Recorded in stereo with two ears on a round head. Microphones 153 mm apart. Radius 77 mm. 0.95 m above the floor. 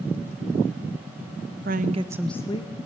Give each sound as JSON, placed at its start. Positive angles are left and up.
{"t": 1.6, "sound": "a woman speaking", "side_deg": -55, "distance_m": 0.9}